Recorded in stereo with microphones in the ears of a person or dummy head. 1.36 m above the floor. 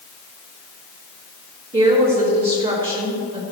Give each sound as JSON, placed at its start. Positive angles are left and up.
{"t": 1.7, "sound": "a woman speaking", "side_deg": -25, "distance_m": 3.0}